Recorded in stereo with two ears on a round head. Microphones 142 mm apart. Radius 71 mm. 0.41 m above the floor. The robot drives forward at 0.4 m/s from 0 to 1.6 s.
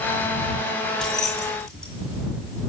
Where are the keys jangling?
5° left (ahead or behind), 2.5 m.